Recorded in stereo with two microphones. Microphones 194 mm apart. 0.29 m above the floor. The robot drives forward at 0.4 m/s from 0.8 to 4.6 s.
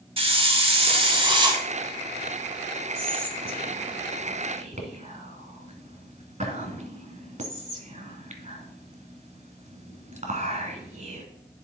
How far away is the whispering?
About 1.6 m.